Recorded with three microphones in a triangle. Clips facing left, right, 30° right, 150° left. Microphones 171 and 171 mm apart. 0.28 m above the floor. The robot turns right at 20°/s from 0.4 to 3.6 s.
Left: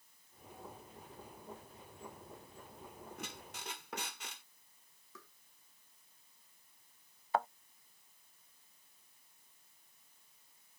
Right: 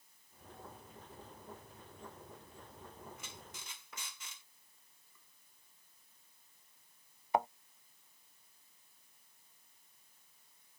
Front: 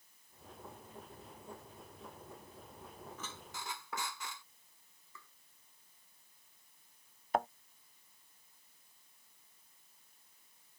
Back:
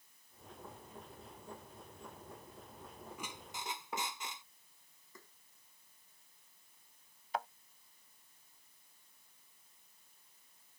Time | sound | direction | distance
3.2 | a squeak | 75° left | ?
5.2 | tapping | 100° left | ?
7.3 | a thud | 20° right | ?